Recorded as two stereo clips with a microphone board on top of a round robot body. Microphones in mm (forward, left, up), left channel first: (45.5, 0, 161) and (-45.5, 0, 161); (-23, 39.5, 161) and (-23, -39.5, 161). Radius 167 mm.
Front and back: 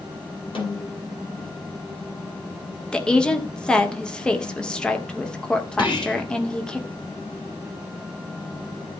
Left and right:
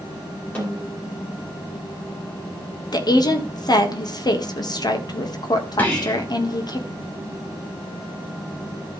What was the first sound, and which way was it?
A snare drum, 20° left.